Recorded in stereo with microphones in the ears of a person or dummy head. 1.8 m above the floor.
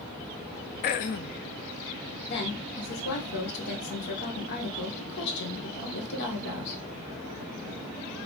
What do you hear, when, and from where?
0.8 s throat clearing: 35° left (ahead or behind), 0.5 m
2.3 s a woman speaking: 60° left (ahead or behind), 2.5 m